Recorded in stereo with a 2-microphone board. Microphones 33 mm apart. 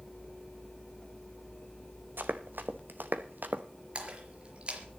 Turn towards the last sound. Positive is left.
turn(degrees=-35)  # may be behind; listen again after turning